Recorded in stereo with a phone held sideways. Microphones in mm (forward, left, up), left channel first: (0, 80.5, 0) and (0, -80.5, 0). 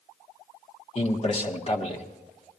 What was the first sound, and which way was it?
A man speaking, 40° left (ahead or behind).